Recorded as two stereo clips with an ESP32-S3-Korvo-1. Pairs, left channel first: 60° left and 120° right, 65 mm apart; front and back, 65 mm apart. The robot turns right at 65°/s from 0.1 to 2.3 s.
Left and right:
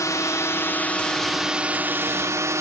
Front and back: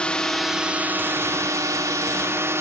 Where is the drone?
70° left; by 2.6 s 145° right.